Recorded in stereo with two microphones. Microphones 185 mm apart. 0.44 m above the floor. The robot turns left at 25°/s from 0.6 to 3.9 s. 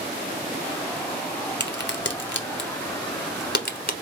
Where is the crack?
65° left (ahead or behind), 1.0 m; by 4.0 s 55° left (ahead or behind), 1.0 m.